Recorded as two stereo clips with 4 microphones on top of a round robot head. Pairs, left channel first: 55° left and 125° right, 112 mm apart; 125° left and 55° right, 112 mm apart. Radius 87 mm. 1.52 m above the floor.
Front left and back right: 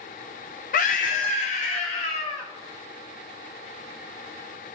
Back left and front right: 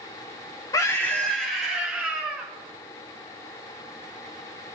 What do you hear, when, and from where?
0.7 s a scream: 65° left, 0.7 m; by 2.5 s 25° left, 1.5 m